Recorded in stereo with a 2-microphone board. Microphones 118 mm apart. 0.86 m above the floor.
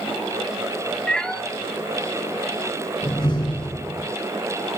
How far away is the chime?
No chime in this recording.